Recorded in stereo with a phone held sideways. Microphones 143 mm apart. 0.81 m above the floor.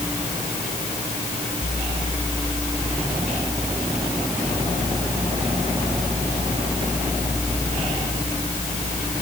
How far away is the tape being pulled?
I don't hear tape being pulled.